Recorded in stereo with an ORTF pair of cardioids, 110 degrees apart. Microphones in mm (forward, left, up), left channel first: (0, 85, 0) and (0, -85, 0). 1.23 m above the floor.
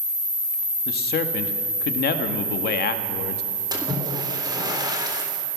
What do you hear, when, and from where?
0.9 s a man speaking: 70° left, 1.8 m
3.7 s a splash: 25° right, 3 m